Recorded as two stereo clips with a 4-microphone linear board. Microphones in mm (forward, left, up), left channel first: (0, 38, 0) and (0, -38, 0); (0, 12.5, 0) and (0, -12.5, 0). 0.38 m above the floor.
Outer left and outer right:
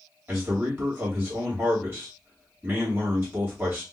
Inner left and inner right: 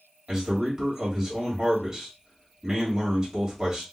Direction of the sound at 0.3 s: 30° right (ahead or behind).